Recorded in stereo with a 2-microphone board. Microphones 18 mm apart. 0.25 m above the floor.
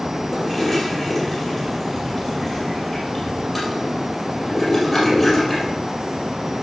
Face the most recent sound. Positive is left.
turn(degrees=5)  # may be behind; listen again after turning